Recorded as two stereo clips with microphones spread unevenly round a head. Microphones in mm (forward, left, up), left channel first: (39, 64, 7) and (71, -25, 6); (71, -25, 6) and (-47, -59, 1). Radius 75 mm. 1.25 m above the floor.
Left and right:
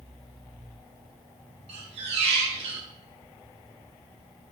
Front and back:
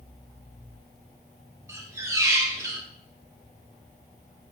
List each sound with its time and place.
1.7 s a squeak: 95° right, 0.8 m